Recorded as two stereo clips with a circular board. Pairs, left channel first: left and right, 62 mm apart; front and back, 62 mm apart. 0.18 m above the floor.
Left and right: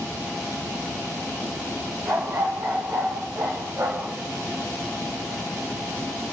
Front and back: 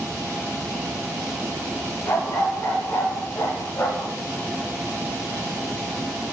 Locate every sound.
2.1 s a dog barking: 35° right, 5.5 m; by 4.1 s 45° right, 6.5 m